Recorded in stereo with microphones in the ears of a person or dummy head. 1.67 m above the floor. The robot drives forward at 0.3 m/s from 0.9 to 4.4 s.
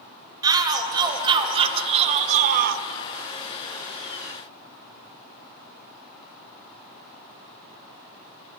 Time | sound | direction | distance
0.4 | a shout | 20° right (ahead or behind) | 0.9 m